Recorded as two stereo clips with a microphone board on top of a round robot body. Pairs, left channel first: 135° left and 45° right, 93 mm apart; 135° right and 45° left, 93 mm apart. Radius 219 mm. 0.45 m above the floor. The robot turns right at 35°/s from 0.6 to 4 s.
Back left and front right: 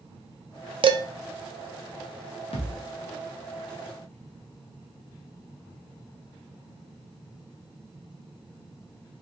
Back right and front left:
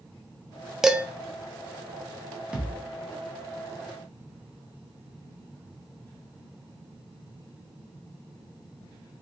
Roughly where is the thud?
Behind left.